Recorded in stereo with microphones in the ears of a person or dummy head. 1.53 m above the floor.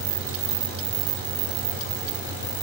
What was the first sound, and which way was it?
A machine running, 60° left (ahead or behind).